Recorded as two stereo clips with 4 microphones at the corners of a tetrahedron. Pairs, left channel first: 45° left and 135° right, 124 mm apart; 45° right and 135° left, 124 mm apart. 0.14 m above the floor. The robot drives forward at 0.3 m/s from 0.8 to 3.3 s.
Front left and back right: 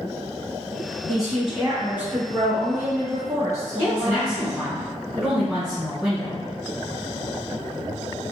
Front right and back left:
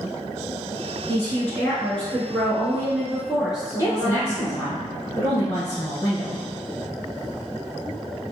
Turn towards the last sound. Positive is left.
turn(degrees=-55)